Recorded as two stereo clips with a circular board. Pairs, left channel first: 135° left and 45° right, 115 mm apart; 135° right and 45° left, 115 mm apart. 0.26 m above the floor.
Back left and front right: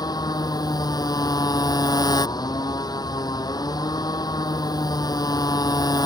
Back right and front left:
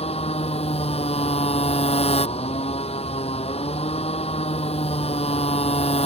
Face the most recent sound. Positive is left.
turn(degrees=-170)